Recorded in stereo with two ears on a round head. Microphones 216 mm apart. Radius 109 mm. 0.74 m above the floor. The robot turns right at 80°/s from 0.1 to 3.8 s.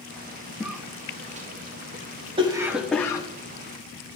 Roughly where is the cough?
Centre.